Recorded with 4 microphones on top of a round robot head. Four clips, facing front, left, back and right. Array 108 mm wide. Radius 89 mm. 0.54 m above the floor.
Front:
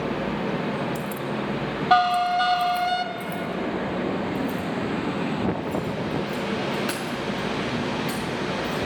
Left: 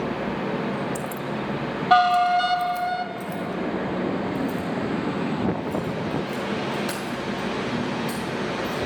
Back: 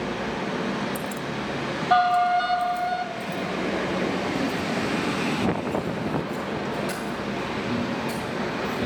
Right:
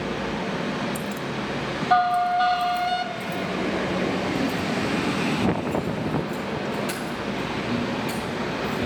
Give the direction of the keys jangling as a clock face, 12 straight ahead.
7 o'clock.